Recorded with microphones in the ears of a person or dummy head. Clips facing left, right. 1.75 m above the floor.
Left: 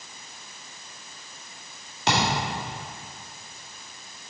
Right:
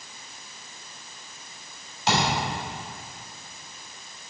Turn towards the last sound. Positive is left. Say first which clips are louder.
# even
turn(degrees=50)  # may be behind; listen again after turning